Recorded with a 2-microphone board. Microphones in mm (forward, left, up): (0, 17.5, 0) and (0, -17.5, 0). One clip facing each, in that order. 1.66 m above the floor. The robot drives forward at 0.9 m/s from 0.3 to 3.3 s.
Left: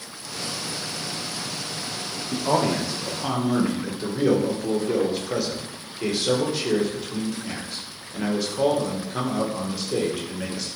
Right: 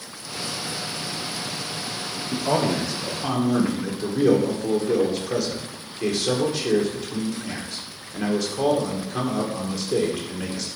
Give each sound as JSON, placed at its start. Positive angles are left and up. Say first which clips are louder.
{"t": 2.3, "sound": "a man speaking", "louder": "even", "side_deg": 10, "distance_m": 1.1}